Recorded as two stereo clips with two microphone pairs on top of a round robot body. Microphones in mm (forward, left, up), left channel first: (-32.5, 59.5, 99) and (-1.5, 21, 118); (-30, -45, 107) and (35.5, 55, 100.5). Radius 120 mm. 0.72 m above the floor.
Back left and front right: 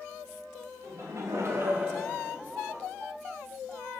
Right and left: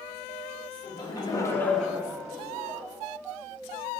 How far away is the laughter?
About 1.2 m.